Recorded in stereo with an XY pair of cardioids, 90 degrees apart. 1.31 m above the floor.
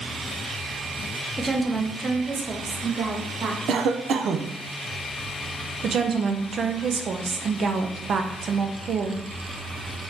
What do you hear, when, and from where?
1.4 s a woman speaking: 15° right, 0.8 m; by 3.6 s 60° right, 1.5 m
3.7 s a cough: 70° right, 0.6 m
5.8 s a woman speaking: 55° right, 0.7 m